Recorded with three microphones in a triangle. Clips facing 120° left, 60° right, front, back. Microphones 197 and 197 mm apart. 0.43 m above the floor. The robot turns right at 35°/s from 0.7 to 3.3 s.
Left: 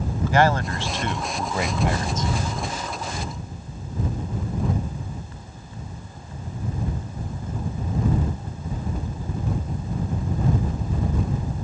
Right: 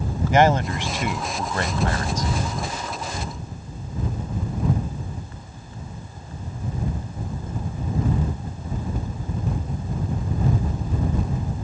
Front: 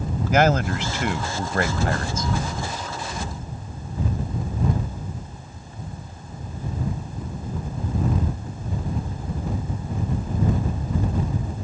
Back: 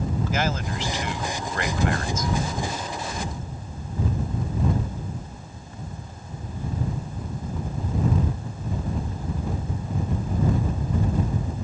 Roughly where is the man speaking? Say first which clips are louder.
Right 3 dB, front 13 dB; ahead.